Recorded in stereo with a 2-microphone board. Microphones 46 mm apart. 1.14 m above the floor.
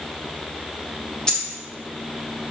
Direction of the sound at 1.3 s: 15° left (ahead or behind).